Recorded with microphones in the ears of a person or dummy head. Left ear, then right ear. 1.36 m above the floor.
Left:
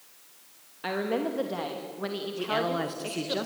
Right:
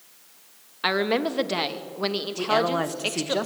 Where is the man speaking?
25° right (ahead or behind), 1.7 m.